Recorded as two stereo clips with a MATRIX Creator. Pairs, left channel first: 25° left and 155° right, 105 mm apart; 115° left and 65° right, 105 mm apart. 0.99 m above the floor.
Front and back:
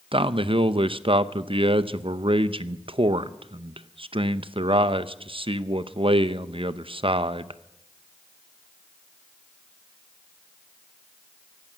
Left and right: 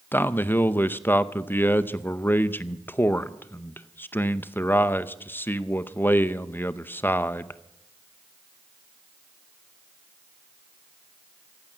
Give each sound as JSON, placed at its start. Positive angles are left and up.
{"t": 0.1, "sound": "a man speaking", "azimuth_deg": 180, "distance_m": 0.7}